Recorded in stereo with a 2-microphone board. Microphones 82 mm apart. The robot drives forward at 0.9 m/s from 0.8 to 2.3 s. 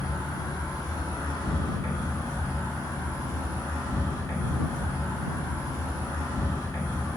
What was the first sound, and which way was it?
An insect, 55° left (ahead or behind).